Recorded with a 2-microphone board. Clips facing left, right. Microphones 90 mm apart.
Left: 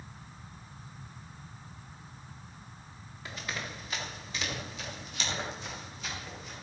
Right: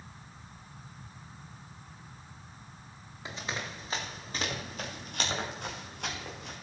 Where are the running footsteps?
20° right (ahead or behind), 5 m; by 6.5 s 65° right (ahead or behind), 7.5 m.